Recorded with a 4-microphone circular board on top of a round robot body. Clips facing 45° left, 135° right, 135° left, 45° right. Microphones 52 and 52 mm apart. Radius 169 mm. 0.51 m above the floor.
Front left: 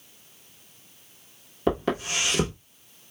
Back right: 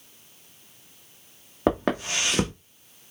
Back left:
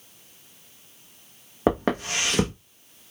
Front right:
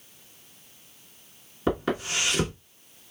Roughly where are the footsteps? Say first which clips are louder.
Back right 2 dB, back left 4 dB; behind.